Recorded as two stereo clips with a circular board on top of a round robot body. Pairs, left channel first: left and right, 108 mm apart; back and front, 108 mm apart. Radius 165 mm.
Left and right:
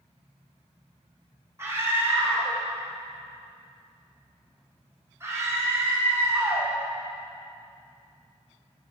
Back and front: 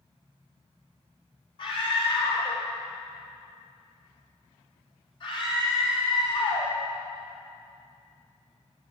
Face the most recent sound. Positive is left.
turn(degrees=-155)